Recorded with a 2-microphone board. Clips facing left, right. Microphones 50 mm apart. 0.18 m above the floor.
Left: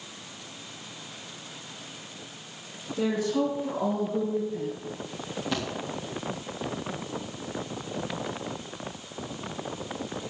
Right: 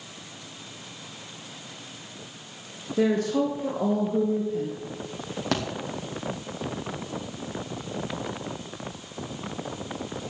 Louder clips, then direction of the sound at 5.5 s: Right 4 dB; 65° right (ahead or behind).